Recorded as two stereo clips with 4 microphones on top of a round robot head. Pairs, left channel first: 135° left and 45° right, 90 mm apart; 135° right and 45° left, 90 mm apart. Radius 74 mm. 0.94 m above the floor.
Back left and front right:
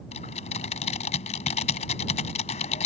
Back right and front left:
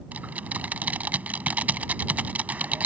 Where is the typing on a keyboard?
120° left.